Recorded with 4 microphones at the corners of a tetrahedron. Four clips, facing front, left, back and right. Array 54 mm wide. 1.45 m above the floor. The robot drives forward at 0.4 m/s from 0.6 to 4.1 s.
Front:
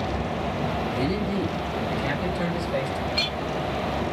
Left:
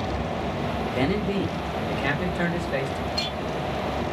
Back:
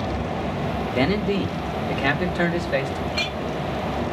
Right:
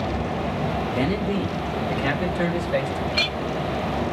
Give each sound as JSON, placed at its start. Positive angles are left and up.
{"t": 0.9, "sound": "a man speaking", "azimuth_deg": 170, "distance_m": 1.7}
{"t": 3.1, "sound": "a clink", "azimuth_deg": -105, "distance_m": 1.9}